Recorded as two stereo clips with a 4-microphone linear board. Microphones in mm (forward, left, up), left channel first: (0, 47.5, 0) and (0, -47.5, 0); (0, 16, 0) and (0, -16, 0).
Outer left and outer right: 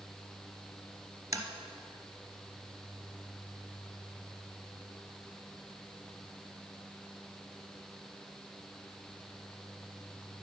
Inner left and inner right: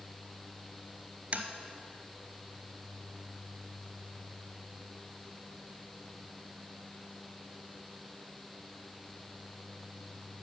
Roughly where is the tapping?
Right.